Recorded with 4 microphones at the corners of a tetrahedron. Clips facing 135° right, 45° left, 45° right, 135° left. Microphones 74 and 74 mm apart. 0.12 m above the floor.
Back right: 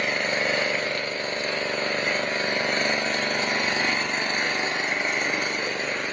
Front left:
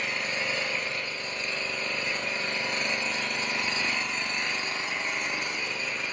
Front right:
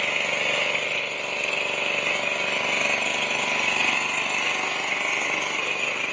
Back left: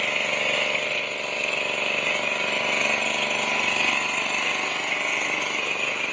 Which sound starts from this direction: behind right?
An engine running, at 0.0 s.